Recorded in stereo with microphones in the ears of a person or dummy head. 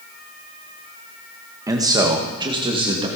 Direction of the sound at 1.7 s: 10° right (ahead or behind).